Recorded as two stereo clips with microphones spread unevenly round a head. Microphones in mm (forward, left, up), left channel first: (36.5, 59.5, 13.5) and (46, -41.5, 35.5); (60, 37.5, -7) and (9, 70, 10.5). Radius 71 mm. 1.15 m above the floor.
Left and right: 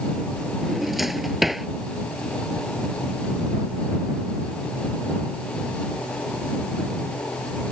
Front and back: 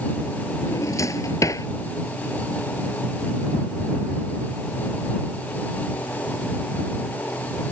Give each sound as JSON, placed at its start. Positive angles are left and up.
{"t": 0.6, "sound": "a drawer", "azimuth_deg": 5}